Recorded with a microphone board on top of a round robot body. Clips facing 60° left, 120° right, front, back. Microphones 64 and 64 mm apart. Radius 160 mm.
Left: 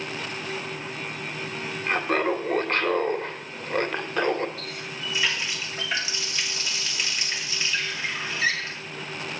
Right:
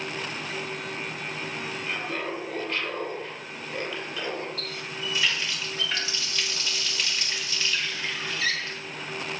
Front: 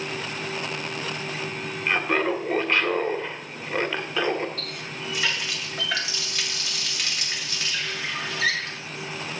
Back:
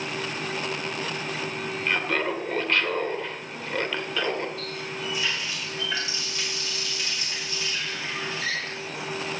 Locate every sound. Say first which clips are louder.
1.9 s laughter: left 10 dB, front 3 dB; 70° left, 1.9 m
4.6 s a running tap: even, back 2 dB; 15° right, 2 m